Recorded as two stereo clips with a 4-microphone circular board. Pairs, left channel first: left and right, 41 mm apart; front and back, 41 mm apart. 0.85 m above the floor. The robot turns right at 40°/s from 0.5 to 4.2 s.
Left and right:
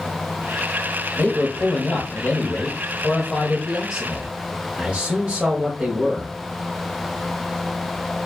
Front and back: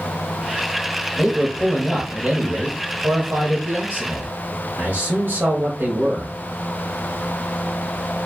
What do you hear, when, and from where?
1.2 s a man speaking: 95° left, 1.1 m; by 6.3 s 145° right, 1.1 m